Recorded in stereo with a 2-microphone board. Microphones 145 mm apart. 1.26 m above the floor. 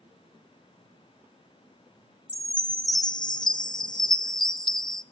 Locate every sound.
2.3 s a chime: 30° left (ahead or behind), 0.5 m